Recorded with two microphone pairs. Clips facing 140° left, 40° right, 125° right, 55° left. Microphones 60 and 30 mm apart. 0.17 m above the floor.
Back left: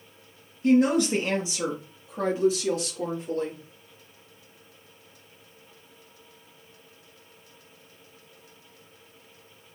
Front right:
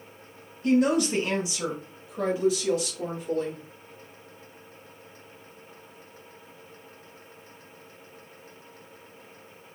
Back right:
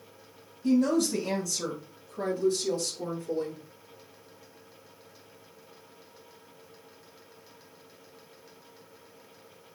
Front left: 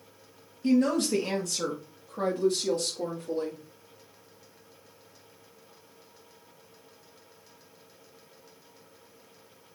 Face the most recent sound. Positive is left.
turn(degrees=80)